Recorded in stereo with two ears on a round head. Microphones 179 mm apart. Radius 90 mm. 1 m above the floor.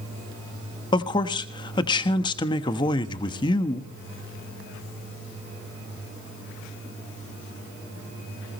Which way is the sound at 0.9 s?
20° left (ahead or behind).